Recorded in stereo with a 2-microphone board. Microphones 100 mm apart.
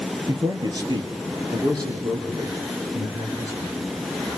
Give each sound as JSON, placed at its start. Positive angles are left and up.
{"t": 0.3, "sound": "a man speaking", "side_deg": -45, "distance_m": 1.8}